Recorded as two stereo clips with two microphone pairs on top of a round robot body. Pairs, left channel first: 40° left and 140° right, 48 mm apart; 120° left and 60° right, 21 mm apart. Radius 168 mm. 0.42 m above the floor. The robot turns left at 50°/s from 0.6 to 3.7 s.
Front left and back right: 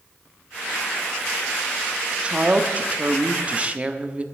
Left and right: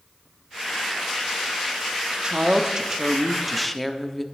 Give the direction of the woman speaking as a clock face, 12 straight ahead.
3 o'clock.